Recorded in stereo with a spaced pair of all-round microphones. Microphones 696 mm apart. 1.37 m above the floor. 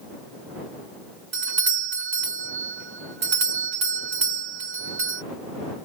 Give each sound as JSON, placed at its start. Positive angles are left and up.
{"t": 1.3, "sound": "a doorbell", "side_deg": -80}